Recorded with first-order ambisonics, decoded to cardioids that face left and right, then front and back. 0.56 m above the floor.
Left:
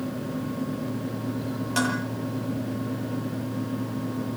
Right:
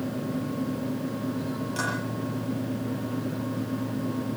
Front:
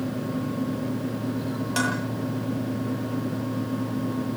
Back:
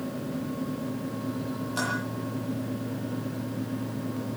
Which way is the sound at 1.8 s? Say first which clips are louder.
Left 4 dB, front 4 dB; 35° left.